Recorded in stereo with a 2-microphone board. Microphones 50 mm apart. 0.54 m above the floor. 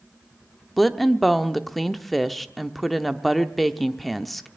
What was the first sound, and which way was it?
A woman speaking, centre (ahead or behind).